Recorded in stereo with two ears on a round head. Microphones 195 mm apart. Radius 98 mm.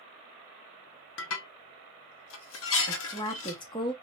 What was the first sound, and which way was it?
Dishes clattering, 65° left (ahead or behind).